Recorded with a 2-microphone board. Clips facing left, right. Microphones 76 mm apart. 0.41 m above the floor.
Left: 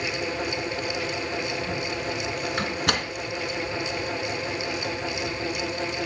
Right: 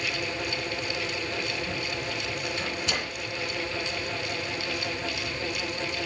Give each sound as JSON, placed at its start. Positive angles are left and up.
{"t": 2.6, "sound": "a door slam", "side_deg": 60, "distance_m": 2.5}